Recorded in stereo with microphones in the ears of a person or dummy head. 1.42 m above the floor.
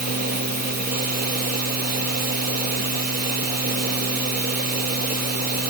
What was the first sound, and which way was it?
A machine running, 50° right (ahead or behind).